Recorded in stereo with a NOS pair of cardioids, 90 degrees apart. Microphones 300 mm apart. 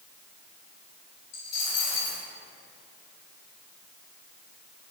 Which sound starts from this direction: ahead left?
A dropped coin, at 1.3 s.